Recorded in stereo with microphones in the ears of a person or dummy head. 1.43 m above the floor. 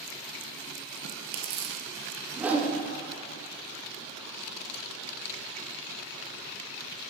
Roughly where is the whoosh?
Centre.